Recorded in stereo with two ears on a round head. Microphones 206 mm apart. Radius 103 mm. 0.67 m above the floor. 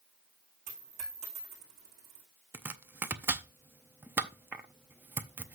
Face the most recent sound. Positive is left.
turn(degrees=-10)  # may be behind; listen again after turning